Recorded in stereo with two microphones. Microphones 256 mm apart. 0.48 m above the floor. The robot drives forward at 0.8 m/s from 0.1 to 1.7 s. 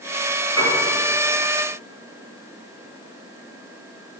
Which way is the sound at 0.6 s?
70° left (ahead or behind).